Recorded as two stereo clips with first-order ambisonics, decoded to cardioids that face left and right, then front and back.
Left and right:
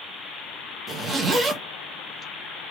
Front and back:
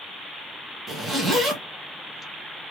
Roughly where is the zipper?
Behind right.